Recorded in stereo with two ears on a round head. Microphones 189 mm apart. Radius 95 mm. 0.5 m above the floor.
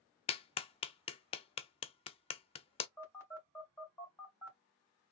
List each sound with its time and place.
0.3 s a clap: 25° left (ahead or behind), 0.5 m
3.0 s a phone buzzing: 10° left (ahead or behind), 2 m